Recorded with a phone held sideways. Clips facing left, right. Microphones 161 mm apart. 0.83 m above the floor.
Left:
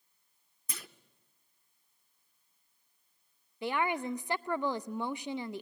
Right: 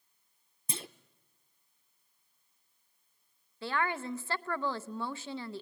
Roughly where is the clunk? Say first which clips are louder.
Right 7 dB; right.